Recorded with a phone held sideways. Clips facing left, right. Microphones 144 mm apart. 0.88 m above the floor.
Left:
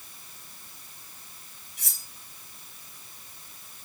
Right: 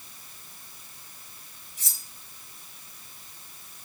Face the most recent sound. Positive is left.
turn(degrees=65)  # may be behind; listen again after turning